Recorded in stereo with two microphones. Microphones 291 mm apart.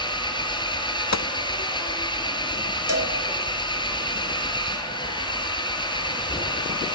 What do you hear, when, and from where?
0.0 s an engine running: 15° left (ahead or behind), 6.5 m
1.1 s a gunshot: 65° left (ahead or behind), 0.6 m
2.9 s a cowbell: 55° right (ahead or behind), 3.5 m